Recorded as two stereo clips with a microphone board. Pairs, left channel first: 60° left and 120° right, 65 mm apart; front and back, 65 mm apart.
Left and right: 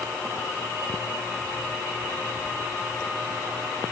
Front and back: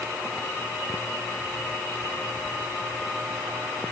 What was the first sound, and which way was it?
Only background noise.